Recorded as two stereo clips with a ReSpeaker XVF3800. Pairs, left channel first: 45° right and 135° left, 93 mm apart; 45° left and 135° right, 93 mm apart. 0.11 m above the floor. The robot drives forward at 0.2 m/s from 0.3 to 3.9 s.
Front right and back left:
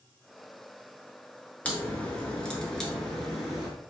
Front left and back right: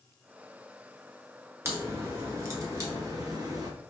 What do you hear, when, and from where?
1.6 s a crack: 105° right, 1.2 m; by 3.7 s 135° right, 1.3 m